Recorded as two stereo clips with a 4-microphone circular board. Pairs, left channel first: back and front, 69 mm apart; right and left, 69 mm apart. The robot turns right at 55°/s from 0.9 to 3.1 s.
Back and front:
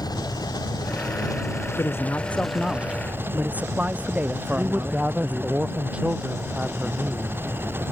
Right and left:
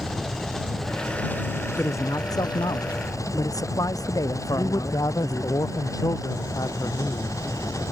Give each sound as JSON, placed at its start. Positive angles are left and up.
{"t": 0.0, "sound": "an engine running", "azimuth_deg": -175}
{"t": 1.8, "sound": "a man speaking", "azimuth_deg": -140}
{"t": 4.6, "sound": "a man speaking", "azimuth_deg": -70}